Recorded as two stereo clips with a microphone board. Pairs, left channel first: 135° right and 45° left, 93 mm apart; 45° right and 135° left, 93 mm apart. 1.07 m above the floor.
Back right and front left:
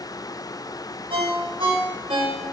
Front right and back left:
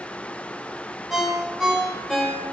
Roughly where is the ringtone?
Ahead left.